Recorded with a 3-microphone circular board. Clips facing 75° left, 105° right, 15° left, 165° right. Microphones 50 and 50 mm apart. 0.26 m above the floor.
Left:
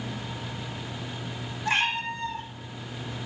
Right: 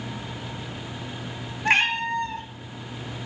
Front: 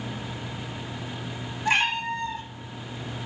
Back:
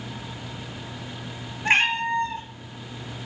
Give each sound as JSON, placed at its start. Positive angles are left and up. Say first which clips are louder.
{"t": 1.6, "sound": "a cat meowing", "louder": "right 5 dB, back 3 dB", "azimuth_deg": -125, "distance_m": 0.7}